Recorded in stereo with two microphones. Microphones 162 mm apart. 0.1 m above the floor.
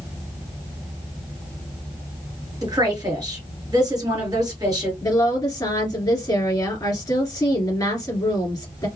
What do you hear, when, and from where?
2.6 s a woman speaking: 25° right (ahead or behind), 1.3 m
5.0 s a woman speaking: 25° left (ahead or behind), 1.5 m